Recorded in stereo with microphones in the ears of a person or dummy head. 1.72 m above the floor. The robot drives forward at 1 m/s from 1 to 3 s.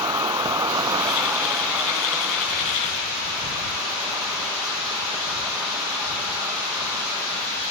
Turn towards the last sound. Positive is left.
turn(degrees=-5)  # may be behind; listen again after turning